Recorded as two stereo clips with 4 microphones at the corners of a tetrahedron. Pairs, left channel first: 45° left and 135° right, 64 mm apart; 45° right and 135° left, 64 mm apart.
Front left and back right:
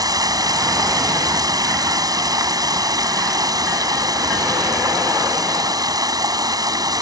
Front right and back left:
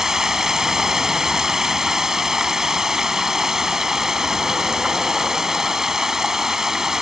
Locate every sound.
0.0 s running water: 145° right